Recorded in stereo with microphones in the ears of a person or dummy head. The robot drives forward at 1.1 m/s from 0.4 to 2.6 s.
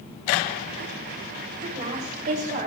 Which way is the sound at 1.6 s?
40° right (ahead or behind).